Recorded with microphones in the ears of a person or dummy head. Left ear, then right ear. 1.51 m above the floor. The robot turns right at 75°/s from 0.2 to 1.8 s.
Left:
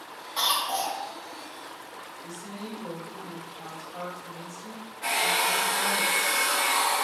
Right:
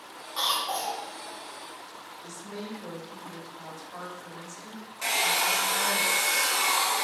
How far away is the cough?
About 1.0 m.